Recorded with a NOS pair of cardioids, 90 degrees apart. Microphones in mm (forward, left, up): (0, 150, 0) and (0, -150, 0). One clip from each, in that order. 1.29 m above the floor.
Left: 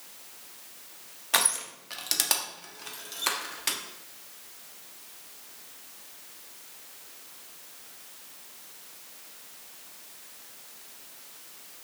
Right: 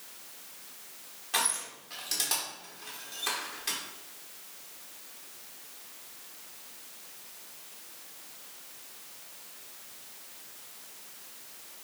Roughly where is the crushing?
Ahead left.